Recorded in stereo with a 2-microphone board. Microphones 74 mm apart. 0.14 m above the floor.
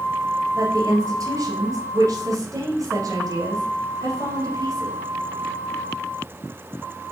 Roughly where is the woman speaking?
Right.